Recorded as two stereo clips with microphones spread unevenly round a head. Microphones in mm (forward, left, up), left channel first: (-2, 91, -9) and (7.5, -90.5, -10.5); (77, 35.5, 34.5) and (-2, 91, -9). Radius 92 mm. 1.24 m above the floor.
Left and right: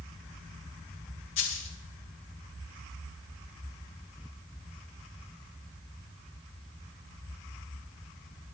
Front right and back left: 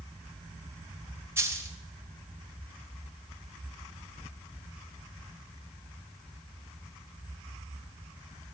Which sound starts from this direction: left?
A dropped coin, at 1.4 s.